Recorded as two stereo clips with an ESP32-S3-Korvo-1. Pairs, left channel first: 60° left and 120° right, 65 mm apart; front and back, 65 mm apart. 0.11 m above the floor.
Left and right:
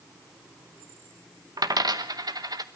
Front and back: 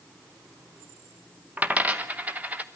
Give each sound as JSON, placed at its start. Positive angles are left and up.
{"t": 1.6, "sound": "a dropped coin", "azimuth_deg": -110, "distance_m": 0.8}